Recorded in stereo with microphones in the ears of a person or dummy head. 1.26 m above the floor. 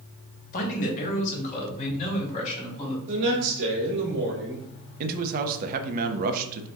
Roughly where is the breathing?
No breathing in this recording.